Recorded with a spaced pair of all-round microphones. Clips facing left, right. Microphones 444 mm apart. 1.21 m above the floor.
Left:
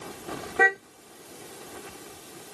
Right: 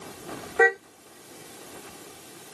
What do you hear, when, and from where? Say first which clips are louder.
0.6 s a car horn: right 5 dB; 45° left (ahead or behind)